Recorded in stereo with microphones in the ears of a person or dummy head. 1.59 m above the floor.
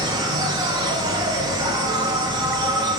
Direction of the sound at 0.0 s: 25° right (ahead or behind).